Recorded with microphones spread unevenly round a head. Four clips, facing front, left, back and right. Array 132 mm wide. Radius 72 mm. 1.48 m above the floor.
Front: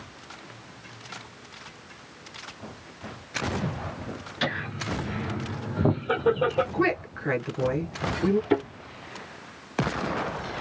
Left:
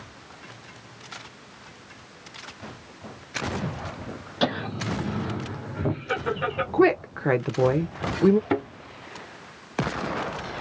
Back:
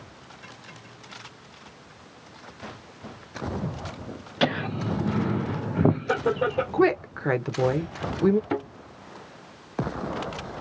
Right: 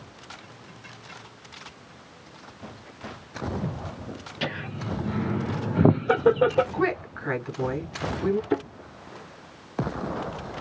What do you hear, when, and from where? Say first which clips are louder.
4.4 s laughter: left 6 dB, back 6 dB; 155° left, 0.8 m; by 6.6 s 90° right, 1.0 m
6.7 s a woman speaking: left 6 dB, back 4 dB; 115° left, 1.1 m
8.5 s a thud: left 1 dB, front 4 dB; 80° left, 2.5 m